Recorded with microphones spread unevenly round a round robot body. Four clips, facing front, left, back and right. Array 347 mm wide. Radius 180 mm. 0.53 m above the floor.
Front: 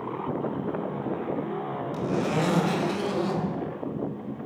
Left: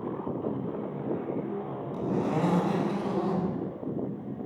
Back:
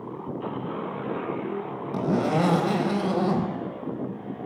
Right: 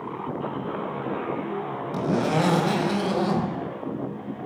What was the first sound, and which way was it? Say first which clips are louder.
A zipper: right 5 dB, back 4 dB; 155° right.